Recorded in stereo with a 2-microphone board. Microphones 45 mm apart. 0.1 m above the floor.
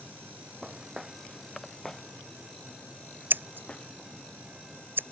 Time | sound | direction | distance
0.6 | footsteps | 15° right (ahead or behind) | ?
3.3 | scissors | 50° right (ahead or behind) | ?